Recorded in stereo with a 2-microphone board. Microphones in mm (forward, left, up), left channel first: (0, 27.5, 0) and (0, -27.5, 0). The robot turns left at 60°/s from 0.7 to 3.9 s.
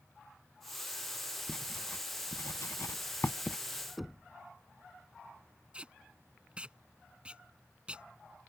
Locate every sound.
1.5 s writing: 20° left (ahead or behind); by 3.6 s 35° left (ahead or behind)
4.0 s knocking: centre (ahead or behind)
5.7 s tape being pulled: 20° right (ahead or behind)